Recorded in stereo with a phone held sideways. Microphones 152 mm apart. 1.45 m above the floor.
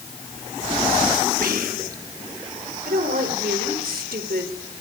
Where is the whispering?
70° right (ahead or behind), 2.5 m.